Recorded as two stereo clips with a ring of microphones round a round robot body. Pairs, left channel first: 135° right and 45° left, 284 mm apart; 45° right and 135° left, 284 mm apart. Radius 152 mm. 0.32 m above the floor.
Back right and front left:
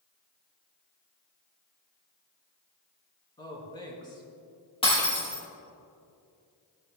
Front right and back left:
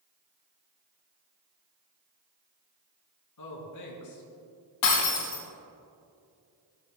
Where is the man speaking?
60° right, 4.5 m.